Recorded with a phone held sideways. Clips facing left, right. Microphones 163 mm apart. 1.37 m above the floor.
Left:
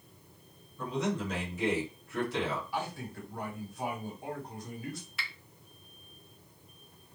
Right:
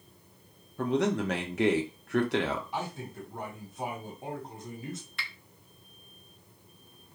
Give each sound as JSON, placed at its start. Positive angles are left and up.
{"t": 0.8, "sound": "a man speaking", "side_deg": -70, "distance_m": 0.8}
{"t": 2.7, "sound": "a man speaking", "side_deg": -20, "distance_m": 1.4}
{"t": 5.2, "sound": "a finger snap", "side_deg": 0, "distance_m": 0.5}